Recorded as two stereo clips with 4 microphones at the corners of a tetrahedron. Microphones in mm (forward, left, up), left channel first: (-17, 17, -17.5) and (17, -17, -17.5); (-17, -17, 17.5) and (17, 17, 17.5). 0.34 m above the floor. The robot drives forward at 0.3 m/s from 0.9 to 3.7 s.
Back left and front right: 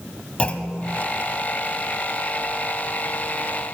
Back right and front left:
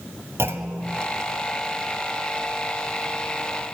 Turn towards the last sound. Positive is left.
turn(degrees=125)